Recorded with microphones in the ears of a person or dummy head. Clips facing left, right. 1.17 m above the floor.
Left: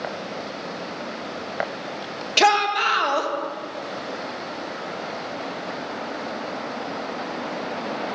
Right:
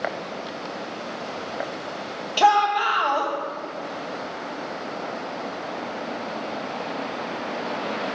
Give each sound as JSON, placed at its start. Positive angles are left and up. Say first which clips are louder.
{"t": 2.4, "sound": "a shout", "louder": "right 1 dB", "side_deg": 30, "distance_m": 1.2}